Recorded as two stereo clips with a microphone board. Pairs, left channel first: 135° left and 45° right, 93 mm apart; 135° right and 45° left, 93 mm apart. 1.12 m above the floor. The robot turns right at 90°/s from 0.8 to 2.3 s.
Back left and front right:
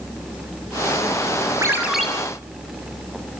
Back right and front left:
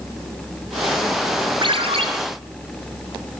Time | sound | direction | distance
1.6 | a ringtone | 10° left | 4.5 m